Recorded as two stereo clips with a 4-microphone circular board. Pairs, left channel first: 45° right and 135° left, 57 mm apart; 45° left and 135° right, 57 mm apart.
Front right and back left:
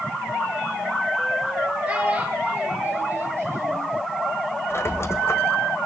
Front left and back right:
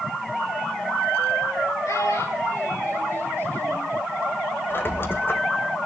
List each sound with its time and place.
1.9 s a child speaking: 70° left, 5.5 m; by 3.9 s 100° left, 4 m
4.7 s a squeak: 5° right, 1.4 m